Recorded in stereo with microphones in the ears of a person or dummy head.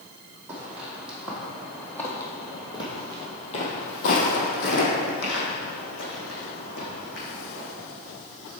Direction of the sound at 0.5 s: 15° right (ahead or behind).